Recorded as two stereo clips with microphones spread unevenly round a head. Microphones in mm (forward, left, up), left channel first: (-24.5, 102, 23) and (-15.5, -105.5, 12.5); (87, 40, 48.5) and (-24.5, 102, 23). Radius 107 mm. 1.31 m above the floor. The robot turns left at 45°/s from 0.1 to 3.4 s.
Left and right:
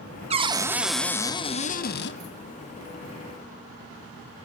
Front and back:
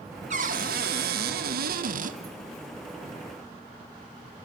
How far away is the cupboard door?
About 1.1 m.